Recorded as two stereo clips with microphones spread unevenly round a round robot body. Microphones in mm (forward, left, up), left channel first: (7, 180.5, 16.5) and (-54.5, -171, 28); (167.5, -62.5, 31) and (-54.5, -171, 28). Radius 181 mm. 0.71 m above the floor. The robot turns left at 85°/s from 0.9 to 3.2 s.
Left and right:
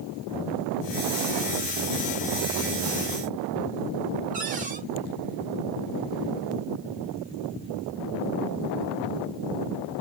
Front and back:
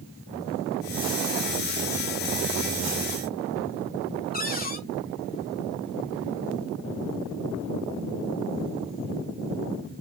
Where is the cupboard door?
30° right, 1.7 m.